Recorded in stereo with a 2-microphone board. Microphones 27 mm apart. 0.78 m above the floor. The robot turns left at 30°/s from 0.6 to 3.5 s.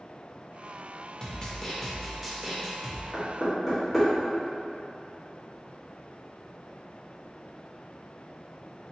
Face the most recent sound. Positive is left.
turn(degrees=-15)  # may be behind; listen again after turning